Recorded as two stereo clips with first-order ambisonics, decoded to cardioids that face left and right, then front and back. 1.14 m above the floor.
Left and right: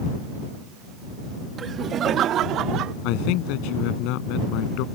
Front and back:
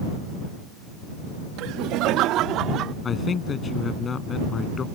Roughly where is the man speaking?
Left.